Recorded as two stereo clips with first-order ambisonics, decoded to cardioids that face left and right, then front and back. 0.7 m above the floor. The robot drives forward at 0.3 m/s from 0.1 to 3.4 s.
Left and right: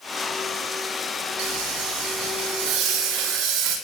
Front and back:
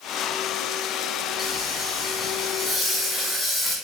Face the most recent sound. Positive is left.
turn(degrees=-90)